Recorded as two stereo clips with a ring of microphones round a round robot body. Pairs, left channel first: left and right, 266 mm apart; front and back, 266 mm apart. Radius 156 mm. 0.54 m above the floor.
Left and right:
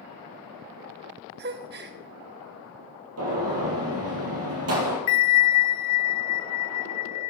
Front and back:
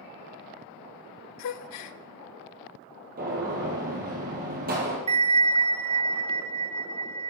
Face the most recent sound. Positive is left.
turn(degrees=110)